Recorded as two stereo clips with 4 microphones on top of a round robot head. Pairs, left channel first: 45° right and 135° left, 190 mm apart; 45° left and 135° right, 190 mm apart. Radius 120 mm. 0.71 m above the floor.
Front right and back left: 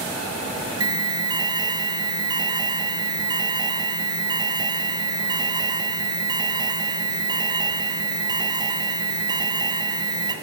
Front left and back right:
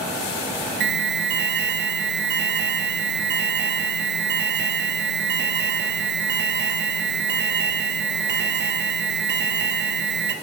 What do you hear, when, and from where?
0.8 s an alarm: 160° right, 1.8 m